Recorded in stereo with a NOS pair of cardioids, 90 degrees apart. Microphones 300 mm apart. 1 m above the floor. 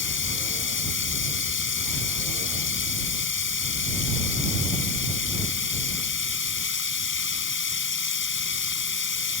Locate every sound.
0.0 s running water: 40° left